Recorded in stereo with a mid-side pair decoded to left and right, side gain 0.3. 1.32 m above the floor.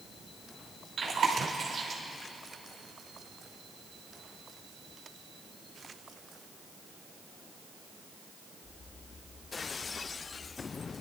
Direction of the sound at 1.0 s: 65° right.